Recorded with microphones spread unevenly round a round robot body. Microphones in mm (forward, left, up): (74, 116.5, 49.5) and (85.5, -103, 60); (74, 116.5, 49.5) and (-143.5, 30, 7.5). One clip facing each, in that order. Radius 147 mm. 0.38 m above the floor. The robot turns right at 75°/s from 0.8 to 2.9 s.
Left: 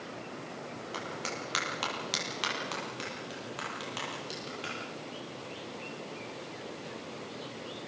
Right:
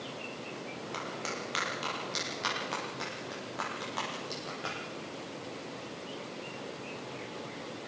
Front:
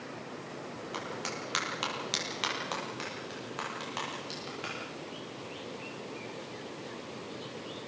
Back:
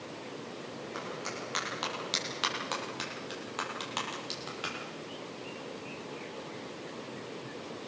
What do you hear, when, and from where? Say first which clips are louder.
0.9 s a clap: left 1 dB, front 1 dB; 10° left, 9.5 m; by 4.8 s 160° left, 9.5 m